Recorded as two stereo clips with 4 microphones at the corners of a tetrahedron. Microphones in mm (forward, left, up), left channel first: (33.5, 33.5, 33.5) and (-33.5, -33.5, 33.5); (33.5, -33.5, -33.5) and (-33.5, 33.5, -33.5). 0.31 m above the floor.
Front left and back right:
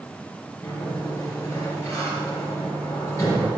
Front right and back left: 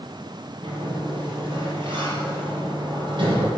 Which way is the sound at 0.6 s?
105° left.